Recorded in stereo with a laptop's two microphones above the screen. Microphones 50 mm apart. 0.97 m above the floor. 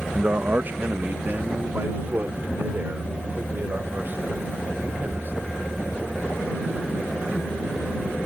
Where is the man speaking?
30° right (ahead or behind); by 5.5 s 40° right (ahead or behind).